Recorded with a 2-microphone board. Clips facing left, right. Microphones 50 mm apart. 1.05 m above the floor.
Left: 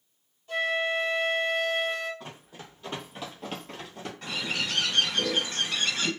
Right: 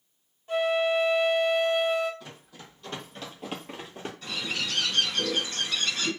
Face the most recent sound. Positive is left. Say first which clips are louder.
# left 1 dB
turn(degrees=50)  # may be behind; listen again after turning